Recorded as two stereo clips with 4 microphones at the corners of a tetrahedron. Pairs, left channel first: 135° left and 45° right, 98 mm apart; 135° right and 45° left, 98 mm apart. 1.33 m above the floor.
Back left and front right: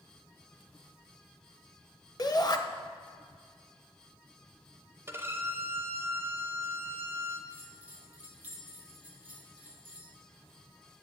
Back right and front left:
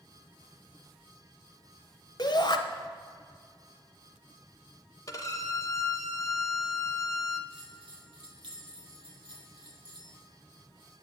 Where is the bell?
25° left, 1.2 m.